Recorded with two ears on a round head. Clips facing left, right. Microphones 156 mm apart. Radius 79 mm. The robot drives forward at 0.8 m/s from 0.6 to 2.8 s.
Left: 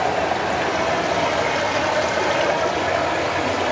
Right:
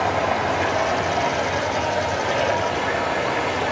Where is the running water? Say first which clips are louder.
Left 1 dB; 35° left (ahead or behind), 1.4 m; by 3.7 s 45° left (ahead or behind), 1.2 m.